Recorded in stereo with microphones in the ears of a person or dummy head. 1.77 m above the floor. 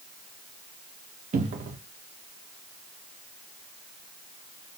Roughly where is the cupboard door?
Right.